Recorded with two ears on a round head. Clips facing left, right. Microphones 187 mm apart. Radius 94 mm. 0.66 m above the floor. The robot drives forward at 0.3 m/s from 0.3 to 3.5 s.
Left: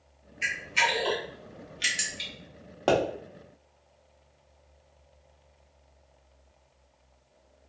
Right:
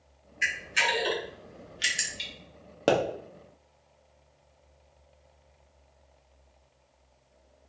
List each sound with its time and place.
0.4 s a camera shutter: 20° right (ahead or behind), 0.7 m; by 2.3 s 10° right (ahead or behind), 1.2 m
2.9 s a pop: 25° right (ahead or behind), 0.9 m